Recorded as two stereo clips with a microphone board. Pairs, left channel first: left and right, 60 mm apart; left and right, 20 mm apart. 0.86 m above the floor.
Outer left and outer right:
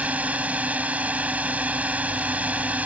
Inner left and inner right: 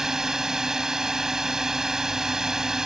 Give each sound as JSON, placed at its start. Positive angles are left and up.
{"t": 0.0, "sound": "a drone", "side_deg": -25}